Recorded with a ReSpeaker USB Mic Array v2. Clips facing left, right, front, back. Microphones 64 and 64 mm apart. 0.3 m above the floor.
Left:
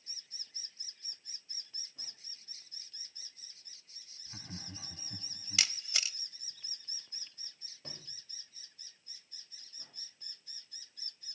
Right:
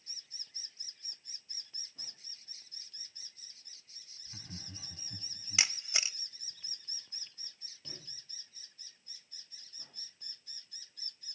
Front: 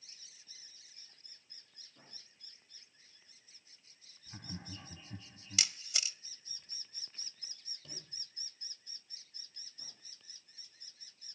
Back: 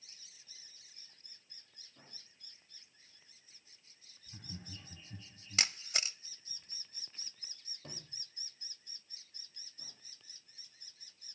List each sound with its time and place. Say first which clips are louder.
4.3 s laughter: left 2 dB, front 3 dB; 30° left, 2.0 m
5.6 s a camera shutter: right 2 dB, back 4 dB; 150° right, 0.6 m
7.8 s a sliding door: left 1 dB, back 3 dB; 140° left, 9 m